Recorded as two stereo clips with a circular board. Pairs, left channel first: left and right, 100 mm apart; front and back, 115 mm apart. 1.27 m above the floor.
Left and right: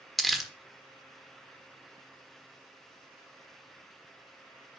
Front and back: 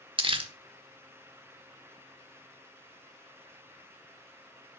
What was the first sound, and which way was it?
Crumpling, 175° left.